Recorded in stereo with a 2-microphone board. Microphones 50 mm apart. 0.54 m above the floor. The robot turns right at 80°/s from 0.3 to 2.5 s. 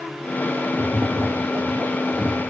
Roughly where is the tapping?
Behind right.